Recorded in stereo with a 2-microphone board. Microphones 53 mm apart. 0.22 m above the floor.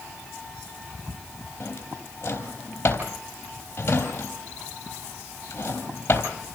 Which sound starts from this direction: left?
A drawer, at 1.6 s.